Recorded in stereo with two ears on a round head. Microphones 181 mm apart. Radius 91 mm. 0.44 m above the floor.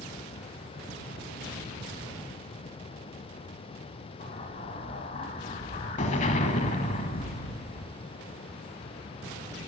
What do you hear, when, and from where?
4.2 s an explosion: 35° left (ahead or behind), 1.0 m